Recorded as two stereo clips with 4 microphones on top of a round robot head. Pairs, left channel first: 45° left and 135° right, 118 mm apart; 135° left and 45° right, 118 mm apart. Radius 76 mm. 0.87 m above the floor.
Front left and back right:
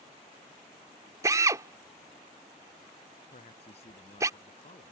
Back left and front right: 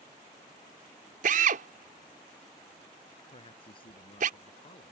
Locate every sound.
1.2 s a drill: 70° right
3.3 s a man speaking: 85° left